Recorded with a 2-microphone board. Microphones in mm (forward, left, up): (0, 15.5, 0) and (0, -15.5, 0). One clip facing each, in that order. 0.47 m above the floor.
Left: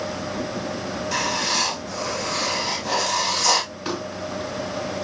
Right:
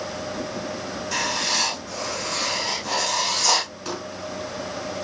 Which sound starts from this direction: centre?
Writing, at 1.1 s.